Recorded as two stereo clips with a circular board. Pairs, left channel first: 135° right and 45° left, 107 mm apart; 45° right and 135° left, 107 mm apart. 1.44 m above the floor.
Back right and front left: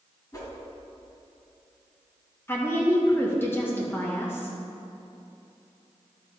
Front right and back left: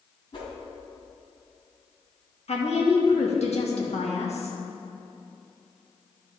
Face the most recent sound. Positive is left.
turn(degrees=-65)